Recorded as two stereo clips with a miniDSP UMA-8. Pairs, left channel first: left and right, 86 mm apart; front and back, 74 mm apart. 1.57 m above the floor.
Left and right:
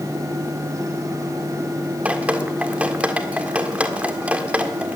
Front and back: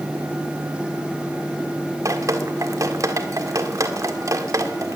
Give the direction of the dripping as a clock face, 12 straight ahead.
5 o'clock.